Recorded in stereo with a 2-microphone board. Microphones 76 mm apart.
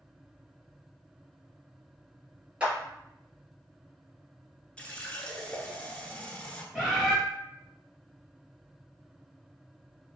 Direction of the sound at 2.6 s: 15° right (ahead or behind).